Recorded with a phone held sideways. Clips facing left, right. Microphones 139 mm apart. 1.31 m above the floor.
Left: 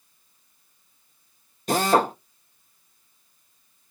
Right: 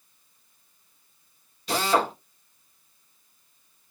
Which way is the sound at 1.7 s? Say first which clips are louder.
Left 4 dB; 45° left (ahead or behind).